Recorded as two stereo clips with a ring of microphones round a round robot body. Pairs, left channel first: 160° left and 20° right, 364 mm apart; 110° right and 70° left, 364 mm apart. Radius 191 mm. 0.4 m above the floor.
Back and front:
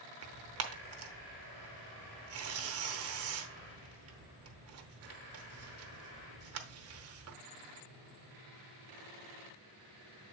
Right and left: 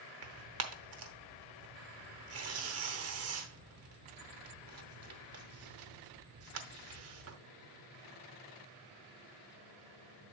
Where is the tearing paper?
20° left, 1.1 m.